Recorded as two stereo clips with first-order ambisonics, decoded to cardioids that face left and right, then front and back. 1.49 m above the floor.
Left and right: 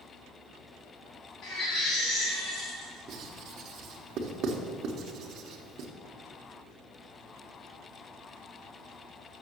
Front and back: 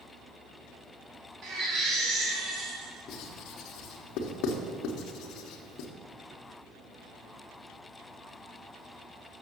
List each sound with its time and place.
1.4 s a baby crying: 135° left, 3 m
3.1 s writing: 40° right, 1.1 m